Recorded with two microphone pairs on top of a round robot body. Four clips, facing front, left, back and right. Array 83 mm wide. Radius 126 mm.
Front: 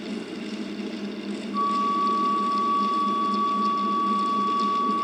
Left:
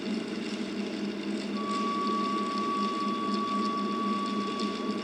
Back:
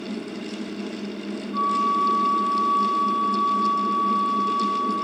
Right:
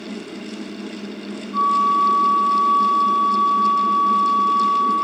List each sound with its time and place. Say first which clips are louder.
1.5 s a flute: right 16 dB, back 2 dB; 105° right, 1.8 m